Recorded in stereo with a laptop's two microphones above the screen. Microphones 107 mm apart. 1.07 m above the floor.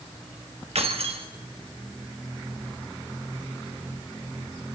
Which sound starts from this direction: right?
Keys jangling, at 0.8 s.